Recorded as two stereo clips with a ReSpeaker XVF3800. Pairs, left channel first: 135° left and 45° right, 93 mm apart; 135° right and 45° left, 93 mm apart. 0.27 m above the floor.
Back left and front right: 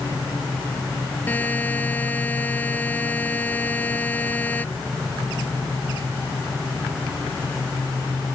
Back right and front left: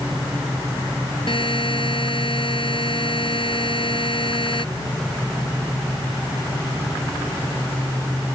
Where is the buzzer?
155° right.